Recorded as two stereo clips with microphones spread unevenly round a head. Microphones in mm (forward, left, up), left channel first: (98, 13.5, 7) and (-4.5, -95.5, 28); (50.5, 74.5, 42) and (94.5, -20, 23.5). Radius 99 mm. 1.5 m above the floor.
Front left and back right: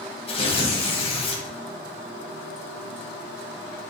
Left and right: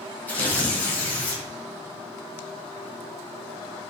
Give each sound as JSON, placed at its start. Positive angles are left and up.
{"t": 0.3, "sound": "tearing paper", "azimuth_deg": 80, "distance_m": 1.5}